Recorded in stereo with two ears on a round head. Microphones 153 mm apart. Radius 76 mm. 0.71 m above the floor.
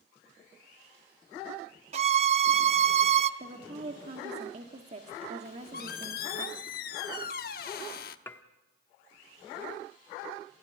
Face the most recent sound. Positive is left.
turn(degrees=15)  # may be behind; listen again after turning